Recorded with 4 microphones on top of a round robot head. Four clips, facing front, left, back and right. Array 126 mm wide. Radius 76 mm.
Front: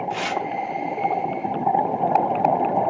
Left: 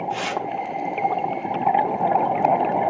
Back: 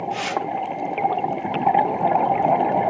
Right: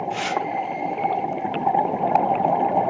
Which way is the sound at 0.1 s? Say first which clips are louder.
Right 2 dB, back 1 dB; 15° left.